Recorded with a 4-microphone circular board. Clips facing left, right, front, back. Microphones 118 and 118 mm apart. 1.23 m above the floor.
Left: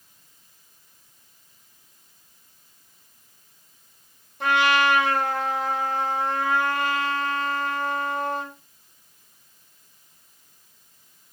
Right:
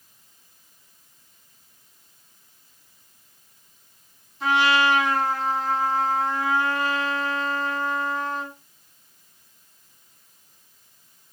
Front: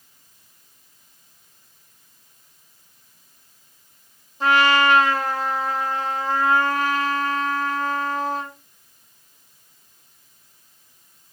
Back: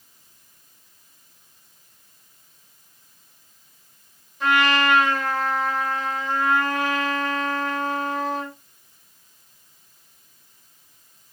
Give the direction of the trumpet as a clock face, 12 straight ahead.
10 o'clock.